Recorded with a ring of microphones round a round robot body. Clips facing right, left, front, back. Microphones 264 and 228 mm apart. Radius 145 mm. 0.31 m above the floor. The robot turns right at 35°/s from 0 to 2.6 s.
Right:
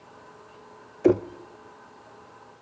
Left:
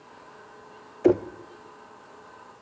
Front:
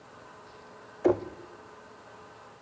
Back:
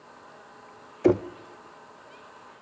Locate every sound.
1.0 s knocking: 175° right, 0.7 m; by 1.3 s 165° right, 0.7 m